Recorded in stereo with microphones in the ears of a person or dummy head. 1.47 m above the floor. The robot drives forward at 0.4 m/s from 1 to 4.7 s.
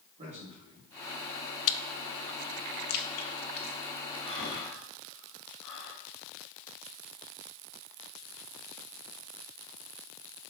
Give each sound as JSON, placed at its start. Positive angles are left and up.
{"t": 0.2, "sound": "a man speaking", "side_deg": -35, "distance_m": 3.0}
{"t": 1.7, "sound": "chewing", "side_deg": 70, "distance_m": 0.6}
{"t": 4.2, "sound": "breathing", "side_deg": 15, "distance_m": 4.0}